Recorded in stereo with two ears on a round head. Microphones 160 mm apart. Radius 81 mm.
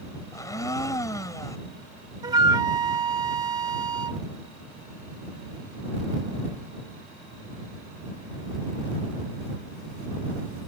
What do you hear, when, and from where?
0.3 s a blender: 20° left (ahead or behind)
2.2 s a flute: 20° right (ahead or behind)